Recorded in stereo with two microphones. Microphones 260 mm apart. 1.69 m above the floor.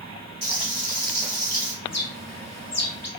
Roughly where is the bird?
Left.